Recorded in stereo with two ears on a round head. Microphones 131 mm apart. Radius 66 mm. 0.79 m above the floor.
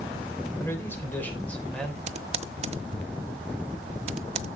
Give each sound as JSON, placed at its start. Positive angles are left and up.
{"t": 0.6, "sound": "a man speaking", "side_deg": 20, "distance_m": 3.5}
{"t": 2.1, "sound": "typing on a keyboard", "side_deg": -45, "distance_m": 0.7}